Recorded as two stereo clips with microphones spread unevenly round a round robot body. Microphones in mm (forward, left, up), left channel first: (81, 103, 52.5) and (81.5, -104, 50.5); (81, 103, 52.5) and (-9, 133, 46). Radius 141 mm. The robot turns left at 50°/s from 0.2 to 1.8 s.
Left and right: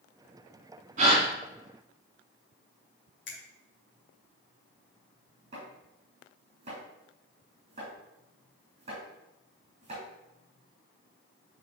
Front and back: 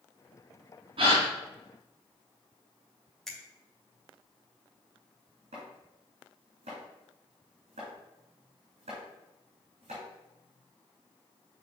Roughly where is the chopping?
Behind.